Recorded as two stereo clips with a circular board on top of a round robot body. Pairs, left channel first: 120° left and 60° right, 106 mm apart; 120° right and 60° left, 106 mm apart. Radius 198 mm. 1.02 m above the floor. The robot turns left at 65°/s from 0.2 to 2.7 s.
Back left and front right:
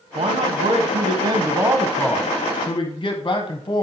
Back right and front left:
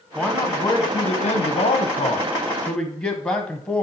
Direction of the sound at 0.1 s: 25° right.